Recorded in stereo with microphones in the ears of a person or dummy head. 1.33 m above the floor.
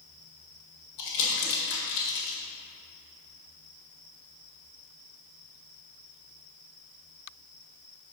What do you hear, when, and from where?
1.0 s crumpling: 65° left (ahead or behind), 1.9 m